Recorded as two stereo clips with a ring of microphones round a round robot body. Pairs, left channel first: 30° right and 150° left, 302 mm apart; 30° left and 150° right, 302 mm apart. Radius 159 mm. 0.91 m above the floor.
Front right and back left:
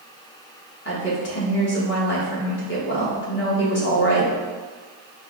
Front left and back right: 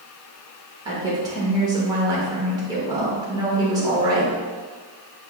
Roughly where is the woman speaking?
Right.